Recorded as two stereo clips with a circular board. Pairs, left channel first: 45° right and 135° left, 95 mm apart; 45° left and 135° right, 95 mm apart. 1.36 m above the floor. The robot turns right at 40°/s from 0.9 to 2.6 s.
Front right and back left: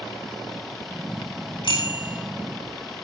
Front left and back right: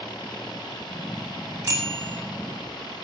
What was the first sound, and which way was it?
A bicycle bell, 80° right.